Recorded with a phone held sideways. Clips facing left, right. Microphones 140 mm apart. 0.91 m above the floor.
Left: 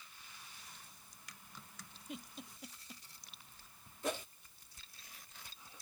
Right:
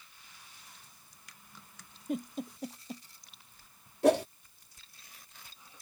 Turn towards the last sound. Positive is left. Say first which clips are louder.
# right 16 dB
turn(degrees=-75)  # may be behind; listen again after turning